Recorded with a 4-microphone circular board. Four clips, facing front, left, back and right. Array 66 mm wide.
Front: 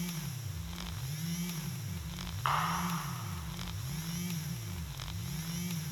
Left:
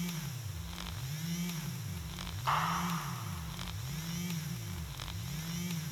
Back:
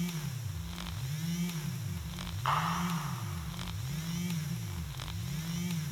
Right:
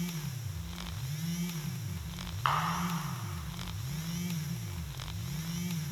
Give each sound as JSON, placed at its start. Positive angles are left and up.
{"t": 2.5, "sound": "a camera shutter", "azimuth_deg": -75, "distance_m": 4.5}